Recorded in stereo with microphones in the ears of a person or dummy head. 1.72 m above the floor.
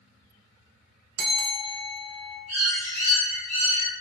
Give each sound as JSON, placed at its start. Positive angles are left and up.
{"t": 1.2, "sound": "a bell", "side_deg": -70, "distance_m": 0.8}
{"t": 2.5, "sound": "a bird", "side_deg": -40, "distance_m": 0.8}